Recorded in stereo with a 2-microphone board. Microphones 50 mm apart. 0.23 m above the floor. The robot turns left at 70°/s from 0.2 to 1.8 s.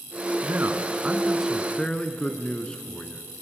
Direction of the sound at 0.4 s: 105° right.